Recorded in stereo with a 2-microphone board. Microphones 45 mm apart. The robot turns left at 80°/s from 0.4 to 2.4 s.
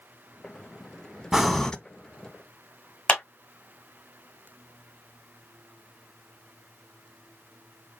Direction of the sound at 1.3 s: 170° right.